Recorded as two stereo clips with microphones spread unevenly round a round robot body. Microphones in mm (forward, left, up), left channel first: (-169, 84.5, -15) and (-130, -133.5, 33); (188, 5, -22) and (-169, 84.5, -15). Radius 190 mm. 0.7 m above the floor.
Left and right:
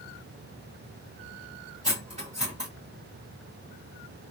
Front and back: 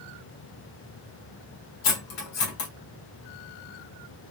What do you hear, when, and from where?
1.8 s cutlery clinking: 5° right, 1.5 m